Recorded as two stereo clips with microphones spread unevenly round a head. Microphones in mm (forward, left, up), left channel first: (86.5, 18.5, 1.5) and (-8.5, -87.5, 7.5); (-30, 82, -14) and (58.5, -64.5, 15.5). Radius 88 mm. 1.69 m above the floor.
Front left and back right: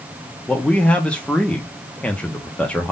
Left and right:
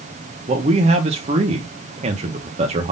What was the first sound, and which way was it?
A man speaking, 35° right.